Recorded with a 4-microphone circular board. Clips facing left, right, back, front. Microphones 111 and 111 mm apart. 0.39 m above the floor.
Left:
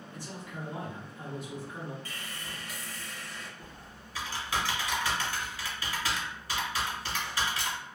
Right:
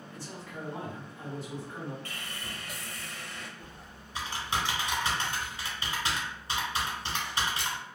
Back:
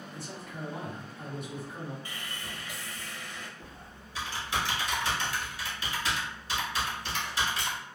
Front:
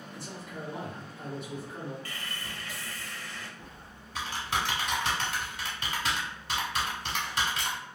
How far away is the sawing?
About 0.5 m.